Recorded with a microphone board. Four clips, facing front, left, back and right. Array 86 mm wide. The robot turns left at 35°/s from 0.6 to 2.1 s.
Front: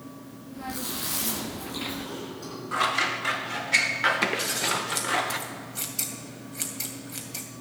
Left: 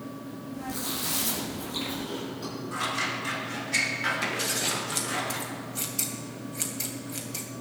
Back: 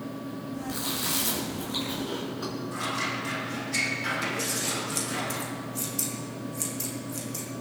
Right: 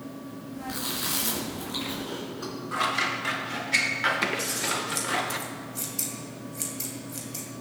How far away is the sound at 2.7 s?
About 1.2 m.